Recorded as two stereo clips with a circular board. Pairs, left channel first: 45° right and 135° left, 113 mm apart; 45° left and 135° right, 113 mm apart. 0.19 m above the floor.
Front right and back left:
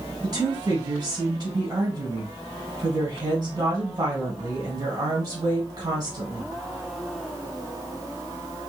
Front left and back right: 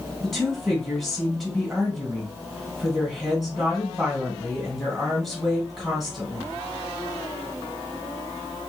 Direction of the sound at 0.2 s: 135° left.